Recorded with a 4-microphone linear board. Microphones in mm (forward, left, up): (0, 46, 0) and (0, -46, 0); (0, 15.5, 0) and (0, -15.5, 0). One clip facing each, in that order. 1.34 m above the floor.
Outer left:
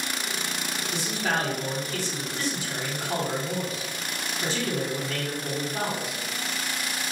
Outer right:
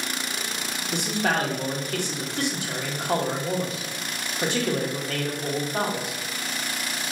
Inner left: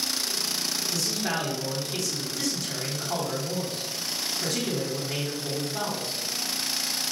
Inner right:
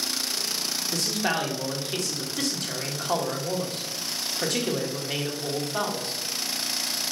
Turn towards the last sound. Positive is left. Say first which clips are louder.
# outer right 4 dB, inner right 4 dB
turn(degrees=-60)  # may be behind; listen again after turning